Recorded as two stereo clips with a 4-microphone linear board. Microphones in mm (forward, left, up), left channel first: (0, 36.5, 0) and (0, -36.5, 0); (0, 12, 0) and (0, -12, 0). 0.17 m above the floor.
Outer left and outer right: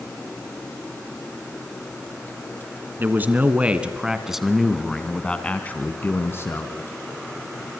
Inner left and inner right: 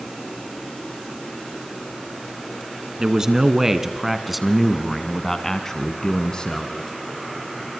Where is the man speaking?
25° right (ahead or behind), 1.9 m; by 6.8 s 35° left (ahead or behind), 1.9 m.